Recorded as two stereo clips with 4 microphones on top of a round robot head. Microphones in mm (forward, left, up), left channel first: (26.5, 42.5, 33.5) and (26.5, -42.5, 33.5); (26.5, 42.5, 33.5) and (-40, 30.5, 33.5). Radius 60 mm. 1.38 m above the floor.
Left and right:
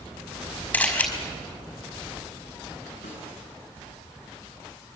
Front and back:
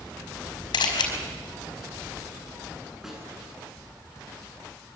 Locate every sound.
0.7 s a camera shutter: 20° left, 5 m
3.0 s a snare drum: 110° left, 9.5 m